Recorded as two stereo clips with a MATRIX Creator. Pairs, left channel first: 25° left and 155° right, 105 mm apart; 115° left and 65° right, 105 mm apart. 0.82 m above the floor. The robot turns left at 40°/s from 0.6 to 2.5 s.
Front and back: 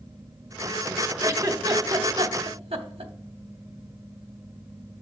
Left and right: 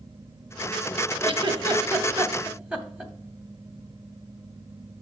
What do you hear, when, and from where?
1.2 s a giggle: 95° right, 0.8 m; by 3.1 s 145° right, 0.8 m